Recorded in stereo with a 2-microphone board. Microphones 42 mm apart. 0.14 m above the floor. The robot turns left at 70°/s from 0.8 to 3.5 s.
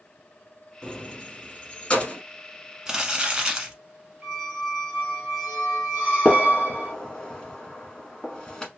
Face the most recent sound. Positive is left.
turn(degrees=15)  # may be behind; listen again after turning